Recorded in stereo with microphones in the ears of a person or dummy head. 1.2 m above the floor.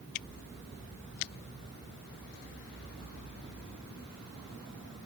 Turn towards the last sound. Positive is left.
No sound to turn to.